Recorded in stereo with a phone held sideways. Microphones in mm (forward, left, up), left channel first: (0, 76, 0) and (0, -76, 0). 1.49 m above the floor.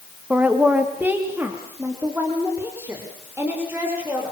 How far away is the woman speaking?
About 1.8 m.